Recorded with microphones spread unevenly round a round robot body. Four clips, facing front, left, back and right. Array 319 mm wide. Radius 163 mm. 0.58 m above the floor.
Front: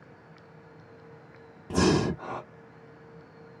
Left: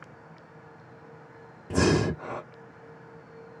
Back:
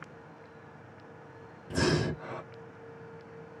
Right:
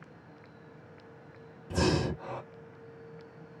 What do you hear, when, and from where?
1.7 s breathing: 50° left, 1.4 m